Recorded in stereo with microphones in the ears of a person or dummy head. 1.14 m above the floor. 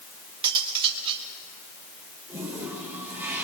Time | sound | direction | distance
0.4 | cutlery clinking | 25° right (ahead or behind) | 1.9 m
2.3 | a toilet flushing | 10° right (ahead or behind) | 4 m